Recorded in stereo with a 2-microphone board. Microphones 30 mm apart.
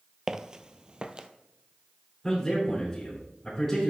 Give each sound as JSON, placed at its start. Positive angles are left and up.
{"t": 0.3, "sound": "footsteps", "side_deg": -20, "distance_m": 0.6}
{"t": 2.2, "sound": "a man speaking", "side_deg": 20, "distance_m": 5.5}